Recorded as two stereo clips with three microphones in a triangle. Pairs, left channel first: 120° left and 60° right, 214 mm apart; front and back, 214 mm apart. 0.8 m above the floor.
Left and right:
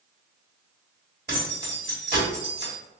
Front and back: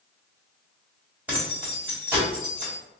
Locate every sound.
1.3 s keys jangling: 95° right, 1.3 m